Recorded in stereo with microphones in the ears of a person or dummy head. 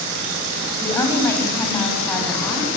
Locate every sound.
0.8 s a woman speaking: 10° left (ahead or behind), 6.5 m; by 2.7 s 5° left (ahead or behind), 7.5 m